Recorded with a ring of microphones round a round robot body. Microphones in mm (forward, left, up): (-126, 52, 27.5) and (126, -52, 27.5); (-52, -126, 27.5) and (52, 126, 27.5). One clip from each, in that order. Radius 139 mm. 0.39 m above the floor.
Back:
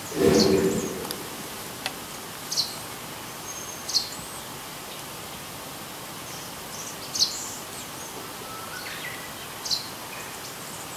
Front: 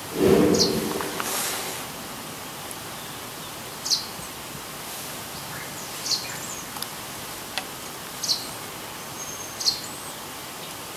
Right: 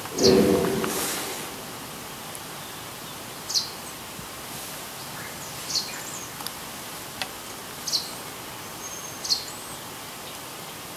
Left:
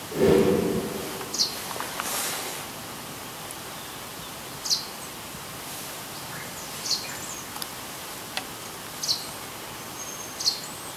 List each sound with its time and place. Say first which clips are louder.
0.1 s a whoosh: front 1 dB, right 1 dB; 105° left, 4 m